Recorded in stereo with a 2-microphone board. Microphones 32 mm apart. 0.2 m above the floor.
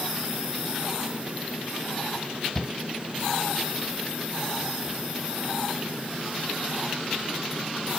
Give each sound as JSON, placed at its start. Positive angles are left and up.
{"t": 2.5, "sound": "a shout", "side_deg": 10}